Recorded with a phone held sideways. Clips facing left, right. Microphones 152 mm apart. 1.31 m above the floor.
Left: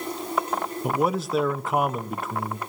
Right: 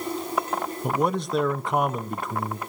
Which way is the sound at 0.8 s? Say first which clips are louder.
Left 1 dB; 5° left (ahead or behind).